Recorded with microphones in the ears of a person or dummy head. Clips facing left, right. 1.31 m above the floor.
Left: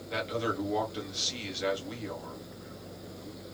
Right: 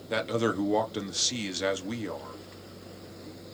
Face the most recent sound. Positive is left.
turn(degrees=-55)  # may be behind; listen again after turning